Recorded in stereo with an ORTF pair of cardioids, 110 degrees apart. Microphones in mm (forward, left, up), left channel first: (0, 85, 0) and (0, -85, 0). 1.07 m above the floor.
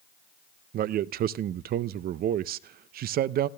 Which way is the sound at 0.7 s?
60° right.